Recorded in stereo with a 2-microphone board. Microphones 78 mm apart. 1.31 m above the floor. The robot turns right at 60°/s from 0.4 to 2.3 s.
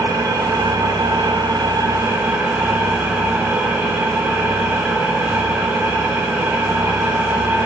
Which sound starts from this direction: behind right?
An engine running, at 0.0 s.